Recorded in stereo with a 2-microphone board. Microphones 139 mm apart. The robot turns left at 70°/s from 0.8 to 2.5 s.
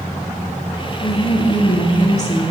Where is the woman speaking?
145° left, 1.5 m; by 2.5 s 40° left, 1.5 m.